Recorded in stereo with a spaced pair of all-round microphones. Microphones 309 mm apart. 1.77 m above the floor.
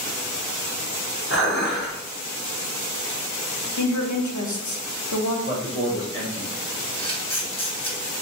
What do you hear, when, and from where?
1.3 s dishes clattering: 40° left (ahead or behind), 1.7 m
3.8 s a woman speaking: 65° left (ahead or behind), 0.7 m
5.5 s a man speaking: 45° left (ahead or behind), 1.0 m
7.0 s a camera shutter: 15° left (ahead or behind), 1.1 m